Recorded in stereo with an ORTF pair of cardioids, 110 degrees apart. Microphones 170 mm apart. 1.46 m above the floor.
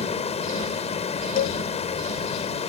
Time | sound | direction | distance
0.0 | running water | 40° left | ?
1.4 | a cowbell | 60° left | ?